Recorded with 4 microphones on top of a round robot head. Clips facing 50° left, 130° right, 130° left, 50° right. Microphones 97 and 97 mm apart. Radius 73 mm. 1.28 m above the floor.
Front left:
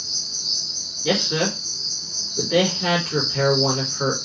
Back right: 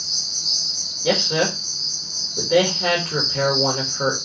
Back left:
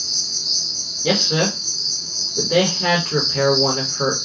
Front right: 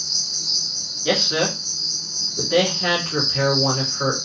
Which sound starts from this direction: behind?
A man speaking, at 1.0 s.